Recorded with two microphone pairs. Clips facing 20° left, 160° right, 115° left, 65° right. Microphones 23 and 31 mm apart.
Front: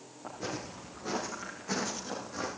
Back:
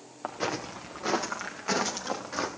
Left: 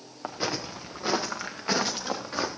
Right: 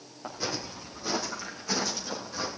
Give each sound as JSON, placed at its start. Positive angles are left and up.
{"t": 0.2, "sound": "footsteps", "azimuth_deg": 175, "distance_m": 2.0}